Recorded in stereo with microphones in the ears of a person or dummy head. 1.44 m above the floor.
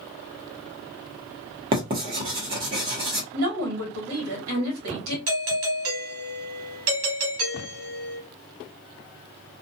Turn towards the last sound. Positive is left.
turn(degrees=-65)  # may be behind; listen again after turning